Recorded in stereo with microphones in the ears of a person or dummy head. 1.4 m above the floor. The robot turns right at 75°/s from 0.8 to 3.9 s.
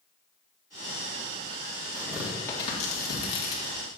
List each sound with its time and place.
1.9 s tearing paper: 25° right (ahead or behind), 1.9 m; by 3.8 s 65° left (ahead or behind), 1.9 m